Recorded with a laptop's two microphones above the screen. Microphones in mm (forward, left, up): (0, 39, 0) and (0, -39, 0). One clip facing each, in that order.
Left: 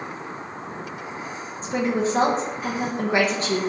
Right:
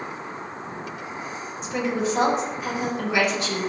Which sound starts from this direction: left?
A woman speaking, at 1.6 s.